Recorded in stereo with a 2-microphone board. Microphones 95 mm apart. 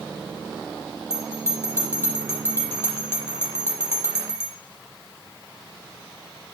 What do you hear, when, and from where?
1.1 s a bell: 25° left (ahead or behind), 6 m